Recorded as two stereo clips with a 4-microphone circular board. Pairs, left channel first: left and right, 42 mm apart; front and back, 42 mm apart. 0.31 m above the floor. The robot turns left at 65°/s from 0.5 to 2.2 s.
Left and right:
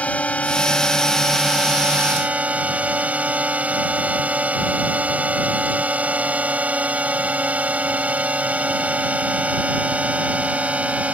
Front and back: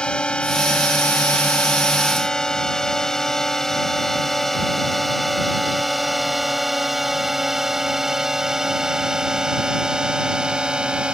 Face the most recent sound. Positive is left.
turn(degrees=-125)